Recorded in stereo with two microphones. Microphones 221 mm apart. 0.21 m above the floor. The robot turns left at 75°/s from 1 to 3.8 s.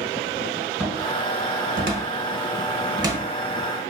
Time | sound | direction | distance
0.8 | a cupboard door | 5° right (ahead or behind) | 0.9 m